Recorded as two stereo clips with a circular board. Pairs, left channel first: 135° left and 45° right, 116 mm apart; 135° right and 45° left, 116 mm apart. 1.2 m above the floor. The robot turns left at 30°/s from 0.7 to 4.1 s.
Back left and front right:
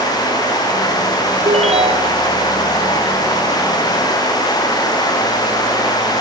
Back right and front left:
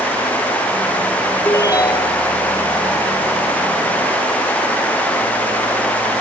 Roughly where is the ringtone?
Ahead right.